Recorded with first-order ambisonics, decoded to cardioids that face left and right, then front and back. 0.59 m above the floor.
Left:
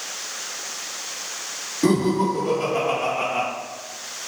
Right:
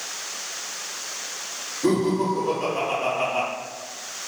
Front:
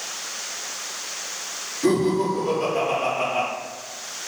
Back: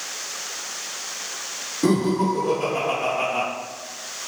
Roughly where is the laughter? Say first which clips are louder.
Left 2 dB, front 1 dB; behind left.